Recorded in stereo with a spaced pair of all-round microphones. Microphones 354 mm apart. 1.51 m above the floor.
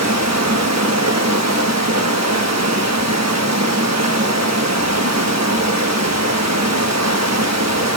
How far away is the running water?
About 1.3 m.